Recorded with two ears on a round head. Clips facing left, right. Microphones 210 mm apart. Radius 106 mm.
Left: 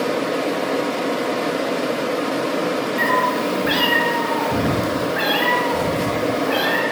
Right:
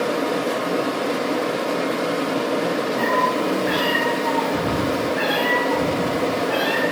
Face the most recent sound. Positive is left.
turn(degrees=75)  # may be behind; listen again after turning